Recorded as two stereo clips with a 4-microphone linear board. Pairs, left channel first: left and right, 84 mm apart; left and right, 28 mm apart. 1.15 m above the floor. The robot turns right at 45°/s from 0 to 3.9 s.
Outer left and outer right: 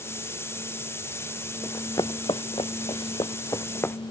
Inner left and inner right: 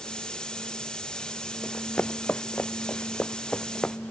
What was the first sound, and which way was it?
Running footsteps, 30° left (ahead or behind).